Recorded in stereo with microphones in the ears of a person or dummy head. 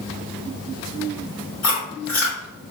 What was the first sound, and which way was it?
Chewing, 10° left (ahead or behind).